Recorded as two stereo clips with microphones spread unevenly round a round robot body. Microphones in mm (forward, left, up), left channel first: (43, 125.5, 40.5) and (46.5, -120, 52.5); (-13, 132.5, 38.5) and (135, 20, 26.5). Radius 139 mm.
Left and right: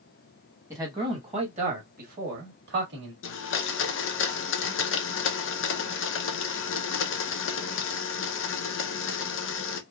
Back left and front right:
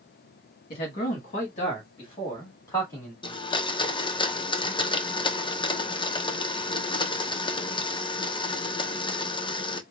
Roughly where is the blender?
Left.